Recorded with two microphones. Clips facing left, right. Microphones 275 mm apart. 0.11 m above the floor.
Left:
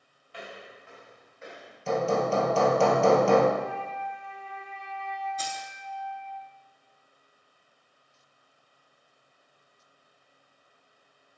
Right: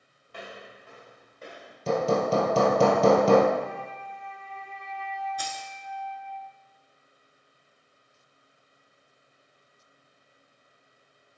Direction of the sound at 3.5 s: 50° right (ahead or behind).